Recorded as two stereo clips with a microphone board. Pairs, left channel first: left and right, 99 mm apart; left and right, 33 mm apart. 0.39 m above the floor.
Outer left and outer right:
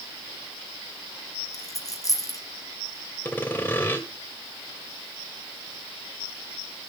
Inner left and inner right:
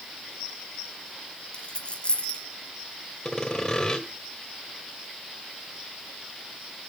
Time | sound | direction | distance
1.5 | a dropped coin | 35° left (ahead or behind) | 2.5 m
3.2 | sawing | 20° left (ahead or behind) | 1.9 m